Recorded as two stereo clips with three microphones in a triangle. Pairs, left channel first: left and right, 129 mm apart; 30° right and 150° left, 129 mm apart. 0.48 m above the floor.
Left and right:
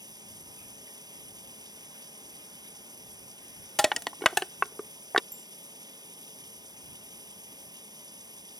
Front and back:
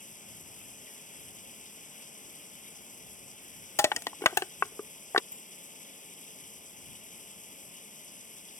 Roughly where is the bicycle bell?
Ahead right.